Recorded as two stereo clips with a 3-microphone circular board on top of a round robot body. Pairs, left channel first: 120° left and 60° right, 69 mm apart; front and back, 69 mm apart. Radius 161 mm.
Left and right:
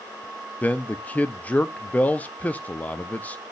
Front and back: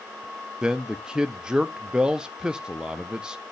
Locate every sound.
0.6 s a man speaking: 120° left, 0.7 m